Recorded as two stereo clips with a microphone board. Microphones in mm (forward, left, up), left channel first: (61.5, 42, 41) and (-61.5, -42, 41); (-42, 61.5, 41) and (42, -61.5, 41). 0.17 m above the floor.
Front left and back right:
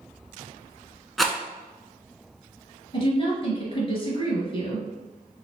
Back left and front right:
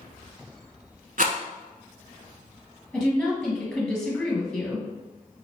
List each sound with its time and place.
1.2 s a rattle: 55° right, 0.8 m
2.9 s a woman speaking: 40° left, 1.9 m